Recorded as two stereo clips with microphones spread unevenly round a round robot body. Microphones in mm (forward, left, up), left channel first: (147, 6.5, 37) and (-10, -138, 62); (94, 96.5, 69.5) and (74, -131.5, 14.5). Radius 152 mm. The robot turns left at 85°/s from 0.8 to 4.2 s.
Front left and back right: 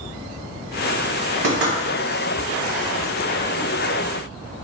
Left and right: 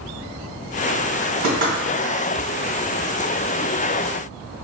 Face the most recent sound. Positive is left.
turn(degrees=15)